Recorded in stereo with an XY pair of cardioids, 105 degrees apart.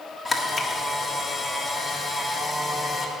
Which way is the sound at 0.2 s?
20° left.